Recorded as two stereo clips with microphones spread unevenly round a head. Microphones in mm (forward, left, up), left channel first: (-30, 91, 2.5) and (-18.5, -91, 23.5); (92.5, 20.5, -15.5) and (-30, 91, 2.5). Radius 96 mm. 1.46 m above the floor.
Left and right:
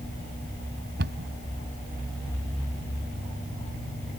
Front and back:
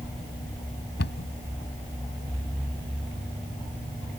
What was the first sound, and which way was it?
A cupboard door, 45° right.